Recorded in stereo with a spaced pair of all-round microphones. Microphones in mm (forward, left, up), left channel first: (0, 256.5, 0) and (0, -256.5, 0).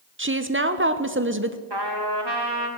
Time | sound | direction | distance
0.2 | a woman speaking | 25° right (ahead or behind) | 0.7 m
1.7 | a trumpet | 50° right (ahead or behind) | 2 m